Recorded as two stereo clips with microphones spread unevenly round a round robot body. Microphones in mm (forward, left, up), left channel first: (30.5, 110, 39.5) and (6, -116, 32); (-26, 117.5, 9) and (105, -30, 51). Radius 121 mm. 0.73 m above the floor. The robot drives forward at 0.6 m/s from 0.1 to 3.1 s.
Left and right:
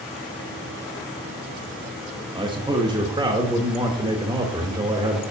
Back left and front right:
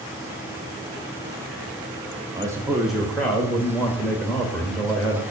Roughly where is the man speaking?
Behind right.